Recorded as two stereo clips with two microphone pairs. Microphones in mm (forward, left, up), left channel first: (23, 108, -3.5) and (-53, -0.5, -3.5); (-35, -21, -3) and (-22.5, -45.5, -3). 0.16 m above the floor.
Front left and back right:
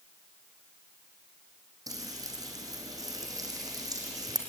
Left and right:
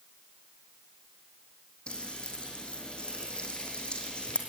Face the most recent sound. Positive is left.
turn(degrees=170)